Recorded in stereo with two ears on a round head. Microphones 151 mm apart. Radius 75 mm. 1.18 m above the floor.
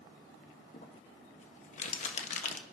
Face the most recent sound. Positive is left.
turn(degrees=45)  # may be behind; listen again after turning